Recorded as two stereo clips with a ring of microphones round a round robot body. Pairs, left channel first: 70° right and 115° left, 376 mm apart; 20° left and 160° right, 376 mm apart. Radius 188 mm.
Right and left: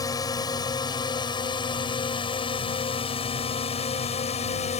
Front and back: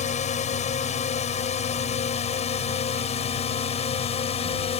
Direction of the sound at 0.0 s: 5° right.